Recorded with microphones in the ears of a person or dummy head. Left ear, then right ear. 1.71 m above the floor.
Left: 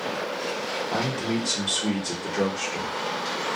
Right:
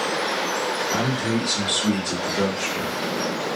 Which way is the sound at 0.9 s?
60° left (ahead or behind).